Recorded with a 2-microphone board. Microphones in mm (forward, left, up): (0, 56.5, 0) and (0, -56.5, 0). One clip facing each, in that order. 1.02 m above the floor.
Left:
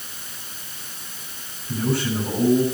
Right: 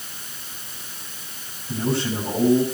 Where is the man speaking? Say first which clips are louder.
Even; 20° right (ahead or behind), 7.5 m.